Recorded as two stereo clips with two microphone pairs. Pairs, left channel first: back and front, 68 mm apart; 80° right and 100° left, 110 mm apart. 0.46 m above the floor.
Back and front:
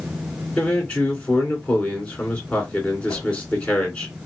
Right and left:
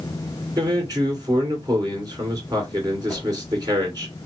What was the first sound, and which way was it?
A man speaking, 125° left.